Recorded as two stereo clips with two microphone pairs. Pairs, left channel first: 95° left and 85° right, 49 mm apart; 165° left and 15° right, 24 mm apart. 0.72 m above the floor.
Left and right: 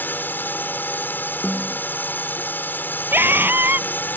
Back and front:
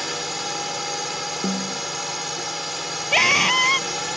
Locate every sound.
0.0 s a drone: 65° left
1.4 s a snare drum: 5° left
3.1 s a scream: 120° right